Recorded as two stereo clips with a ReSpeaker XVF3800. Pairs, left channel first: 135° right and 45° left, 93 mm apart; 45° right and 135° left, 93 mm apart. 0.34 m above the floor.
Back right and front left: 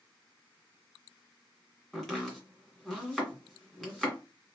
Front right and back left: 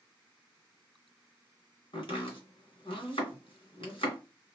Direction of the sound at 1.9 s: 50° right.